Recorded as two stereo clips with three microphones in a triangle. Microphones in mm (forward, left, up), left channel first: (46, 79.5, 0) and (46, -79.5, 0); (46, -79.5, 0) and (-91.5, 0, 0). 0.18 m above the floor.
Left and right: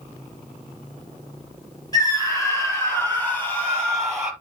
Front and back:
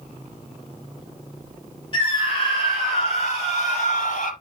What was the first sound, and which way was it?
A scream, 25° left.